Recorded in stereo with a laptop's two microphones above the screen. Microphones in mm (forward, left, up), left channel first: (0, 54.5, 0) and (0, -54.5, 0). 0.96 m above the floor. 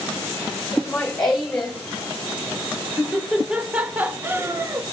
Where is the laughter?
5° left (ahead or behind), 2 m; by 4.8 s 30° right (ahead or behind), 0.7 m.